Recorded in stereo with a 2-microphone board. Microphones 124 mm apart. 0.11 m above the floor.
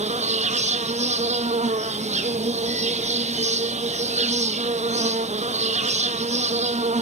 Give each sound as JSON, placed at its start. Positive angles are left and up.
{"t": 0.0, "sound": "an insect", "side_deg": -65, "distance_m": 1.2}